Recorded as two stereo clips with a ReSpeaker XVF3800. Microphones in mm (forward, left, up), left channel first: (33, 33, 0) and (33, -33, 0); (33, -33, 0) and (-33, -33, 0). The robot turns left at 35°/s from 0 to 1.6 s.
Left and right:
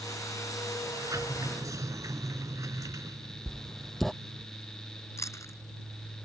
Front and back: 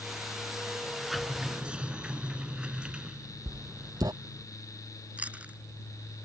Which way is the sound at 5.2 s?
115° left.